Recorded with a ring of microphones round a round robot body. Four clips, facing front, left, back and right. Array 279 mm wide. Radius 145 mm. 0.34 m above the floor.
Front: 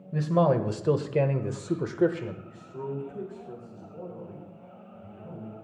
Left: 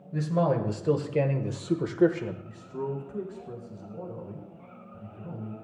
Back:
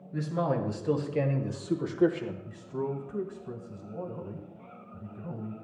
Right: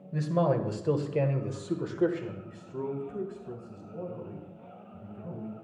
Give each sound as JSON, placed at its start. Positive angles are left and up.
{"t": 0.1, "sound": "a man speaking", "azimuth_deg": -10, "distance_m": 1.6}
{"t": 2.5, "sound": "a man speaking", "azimuth_deg": -160, "distance_m": 1.6}